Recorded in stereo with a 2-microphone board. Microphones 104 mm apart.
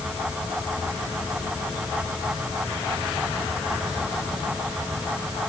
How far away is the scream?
I don't hear a scream.